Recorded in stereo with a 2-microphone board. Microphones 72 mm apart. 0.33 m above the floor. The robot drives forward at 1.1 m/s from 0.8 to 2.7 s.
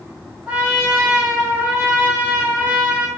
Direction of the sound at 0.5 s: 20° right (ahead or behind).